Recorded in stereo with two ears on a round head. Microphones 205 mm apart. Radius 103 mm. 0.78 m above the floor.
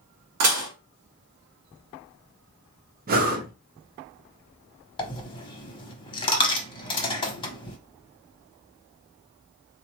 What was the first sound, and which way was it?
Dishes clattering, 70° right (ahead or behind).